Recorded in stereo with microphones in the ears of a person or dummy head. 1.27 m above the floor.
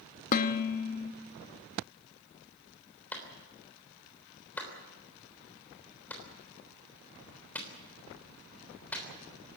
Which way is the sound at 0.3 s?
45° left (ahead or behind).